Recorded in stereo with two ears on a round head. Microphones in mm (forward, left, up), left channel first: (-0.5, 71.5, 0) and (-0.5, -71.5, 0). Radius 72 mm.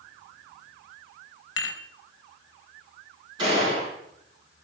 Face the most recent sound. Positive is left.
turn(degrees=-25)  # may be behind; listen again after turning